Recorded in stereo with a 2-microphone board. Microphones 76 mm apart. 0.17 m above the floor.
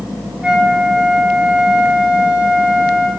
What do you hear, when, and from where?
0.4 s a flute: 15° right (ahead or behind), 1.3 m